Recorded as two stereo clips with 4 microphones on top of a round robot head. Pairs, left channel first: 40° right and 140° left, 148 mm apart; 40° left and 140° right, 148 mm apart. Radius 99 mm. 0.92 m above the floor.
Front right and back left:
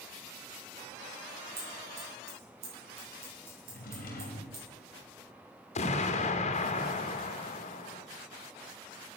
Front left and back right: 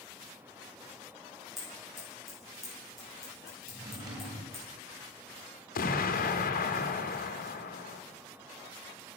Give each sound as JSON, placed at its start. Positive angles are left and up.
{"t": 1.6, "sound": "scissors", "azimuth_deg": 130, "distance_m": 6.5}
{"t": 3.7, "sound": "a drawer", "azimuth_deg": -75, "distance_m": 3.5}
{"t": 5.8, "sound": "an explosion", "azimuth_deg": 10, "distance_m": 1.2}